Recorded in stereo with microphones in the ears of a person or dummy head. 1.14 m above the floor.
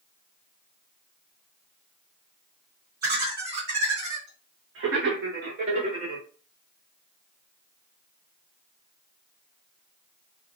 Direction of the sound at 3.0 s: 50° right (ahead or behind).